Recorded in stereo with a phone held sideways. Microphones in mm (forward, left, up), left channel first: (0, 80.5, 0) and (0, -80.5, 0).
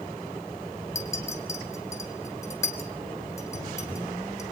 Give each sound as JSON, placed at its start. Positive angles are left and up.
{"t": 0.9, "sound": "a clink", "side_deg": 20, "distance_m": 3.5}